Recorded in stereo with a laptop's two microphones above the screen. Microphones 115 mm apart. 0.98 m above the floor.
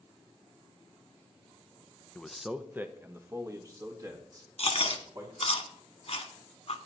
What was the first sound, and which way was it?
A man speaking, 10° left (ahead or behind).